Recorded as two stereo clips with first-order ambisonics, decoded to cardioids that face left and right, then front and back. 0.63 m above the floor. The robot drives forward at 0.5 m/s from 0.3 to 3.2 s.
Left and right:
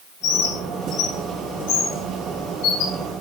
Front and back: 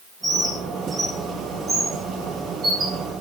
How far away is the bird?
About 3.5 m.